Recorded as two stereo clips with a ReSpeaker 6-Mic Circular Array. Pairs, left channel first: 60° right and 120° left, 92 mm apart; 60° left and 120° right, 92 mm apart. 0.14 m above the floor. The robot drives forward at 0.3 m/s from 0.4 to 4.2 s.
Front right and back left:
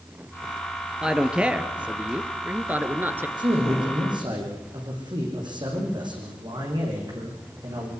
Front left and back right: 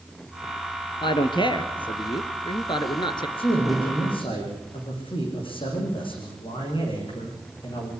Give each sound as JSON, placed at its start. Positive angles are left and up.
{"t": 1.0, "sound": "a man speaking", "azimuth_deg": 40, "distance_m": 2.5}
{"t": 3.4, "sound": "a man speaking", "azimuth_deg": 80, "distance_m": 9.0}